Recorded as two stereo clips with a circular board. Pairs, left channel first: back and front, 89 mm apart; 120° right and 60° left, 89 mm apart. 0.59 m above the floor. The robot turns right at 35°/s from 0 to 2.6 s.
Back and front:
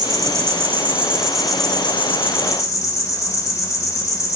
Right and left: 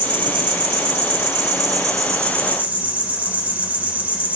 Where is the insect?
40° left, 2.5 m; by 4.4 s 130° left, 2.5 m.